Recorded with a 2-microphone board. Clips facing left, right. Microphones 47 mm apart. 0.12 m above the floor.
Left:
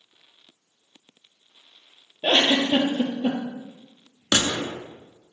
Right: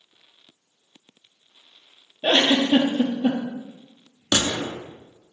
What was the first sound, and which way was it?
A giggle, 15° left (ahead or behind).